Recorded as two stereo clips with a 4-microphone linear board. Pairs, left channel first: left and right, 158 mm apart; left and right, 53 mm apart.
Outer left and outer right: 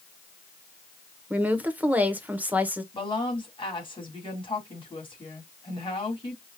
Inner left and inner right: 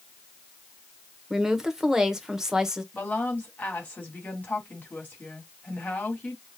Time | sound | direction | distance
1.3 | a woman speaking | 10° right (ahead or behind) | 0.9 m
2.9 | a woman speaking | 35° left (ahead or behind) | 2.5 m